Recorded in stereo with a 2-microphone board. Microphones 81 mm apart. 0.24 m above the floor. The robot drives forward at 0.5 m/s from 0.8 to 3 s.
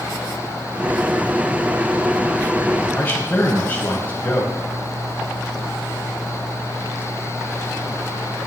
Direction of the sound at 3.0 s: 20° left (ahead or behind).